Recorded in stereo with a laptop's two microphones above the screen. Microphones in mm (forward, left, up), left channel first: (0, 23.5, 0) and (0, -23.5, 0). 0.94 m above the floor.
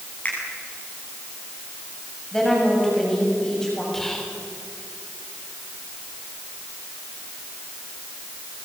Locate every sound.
0.2 s a finger snap: 30° left (ahead or behind), 7.5 m
2.3 s a woman speaking: 15° left (ahead or behind), 7.5 m
3.9 s whispering: 5° left (ahead or behind), 3 m